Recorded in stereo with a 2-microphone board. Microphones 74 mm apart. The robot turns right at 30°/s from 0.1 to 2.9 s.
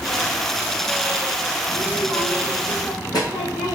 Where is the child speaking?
50° left, 1.9 m; by 3.7 s 90° left, 1.9 m.